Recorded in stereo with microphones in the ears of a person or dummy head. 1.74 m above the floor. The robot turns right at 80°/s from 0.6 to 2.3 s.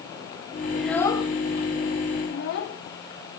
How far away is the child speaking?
About 2.5 m.